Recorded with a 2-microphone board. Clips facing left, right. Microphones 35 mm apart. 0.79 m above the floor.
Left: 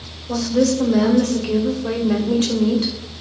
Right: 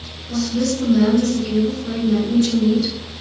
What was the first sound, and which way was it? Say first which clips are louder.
A woman speaking: left 3 dB; 70° left (ahead or behind).